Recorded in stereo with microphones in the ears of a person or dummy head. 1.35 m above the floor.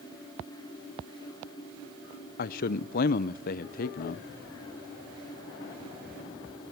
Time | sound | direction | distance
2.4 | a man speaking | 50° left (ahead or behind) | 0.6 m